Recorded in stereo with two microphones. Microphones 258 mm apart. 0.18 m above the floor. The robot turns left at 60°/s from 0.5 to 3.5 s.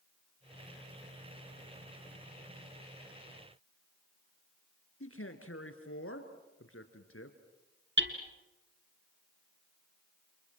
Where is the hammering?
50° right (ahead or behind), 2 m.